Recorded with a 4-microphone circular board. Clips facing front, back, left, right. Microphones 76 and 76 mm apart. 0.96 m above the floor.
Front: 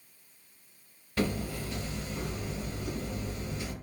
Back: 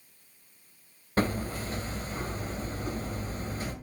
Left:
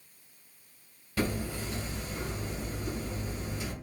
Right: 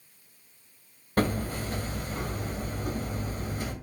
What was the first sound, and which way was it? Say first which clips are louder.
Hammering: back 2 dB, right 4 dB; 130° right.